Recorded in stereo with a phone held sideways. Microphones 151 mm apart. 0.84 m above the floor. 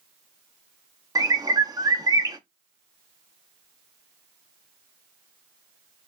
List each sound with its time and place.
1.1 s a bird: 25° right (ahead or behind), 0.7 m